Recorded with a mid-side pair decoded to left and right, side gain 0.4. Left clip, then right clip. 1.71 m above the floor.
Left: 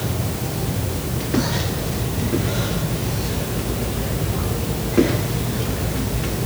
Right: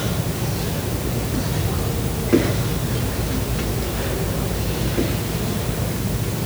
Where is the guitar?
I don't hear a guitar.